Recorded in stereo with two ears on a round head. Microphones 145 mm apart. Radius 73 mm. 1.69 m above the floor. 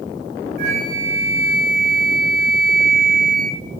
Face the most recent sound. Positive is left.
turn(degrees=-55)  # may be behind; listen again after turning